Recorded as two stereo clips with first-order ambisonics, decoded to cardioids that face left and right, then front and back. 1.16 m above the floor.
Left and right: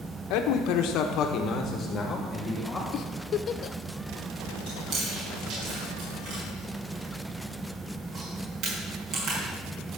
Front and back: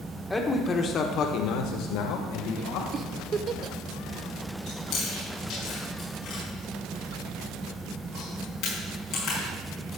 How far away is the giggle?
About 0.5 m.